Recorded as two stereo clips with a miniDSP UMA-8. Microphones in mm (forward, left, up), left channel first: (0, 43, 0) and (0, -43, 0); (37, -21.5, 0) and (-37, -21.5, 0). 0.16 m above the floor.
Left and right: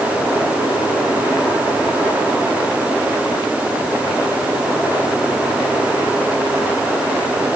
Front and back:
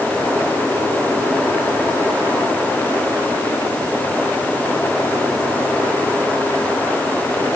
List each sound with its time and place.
Only background noise.